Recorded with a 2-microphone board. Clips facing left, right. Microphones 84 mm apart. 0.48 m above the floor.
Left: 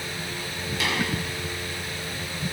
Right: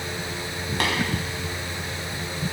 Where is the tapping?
55° right (ahead or behind), 4 m.